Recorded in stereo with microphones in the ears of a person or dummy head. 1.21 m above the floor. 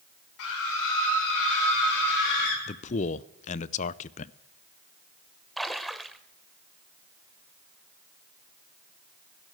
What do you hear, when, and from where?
0.4 s a scream: 75° left (ahead or behind), 6 m; by 2.6 s 65° left (ahead or behind), 6.5 m
2.7 s a man speaking: 35° left (ahead or behind), 0.5 m
5.6 s a splash: centre (ahead or behind), 1.1 m